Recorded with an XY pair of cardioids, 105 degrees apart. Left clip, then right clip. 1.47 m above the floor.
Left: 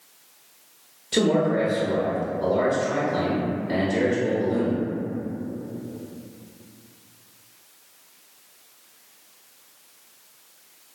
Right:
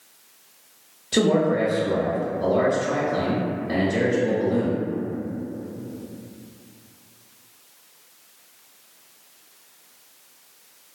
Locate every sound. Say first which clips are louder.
1.1 s a man speaking: right 1 dB; 10° right, 0.7 m